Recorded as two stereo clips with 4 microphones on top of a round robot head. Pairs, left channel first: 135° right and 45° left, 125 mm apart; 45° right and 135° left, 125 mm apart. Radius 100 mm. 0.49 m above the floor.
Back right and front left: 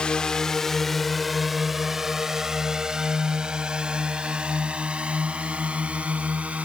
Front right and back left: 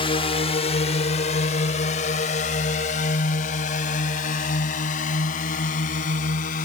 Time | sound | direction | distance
0.0 | a drone | 55° right | ?